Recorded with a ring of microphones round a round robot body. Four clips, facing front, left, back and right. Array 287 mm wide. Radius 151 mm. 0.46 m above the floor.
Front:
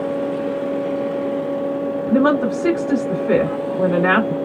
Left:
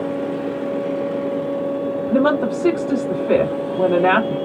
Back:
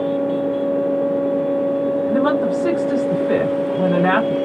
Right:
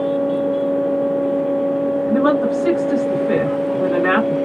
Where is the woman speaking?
65° left, 2.5 m.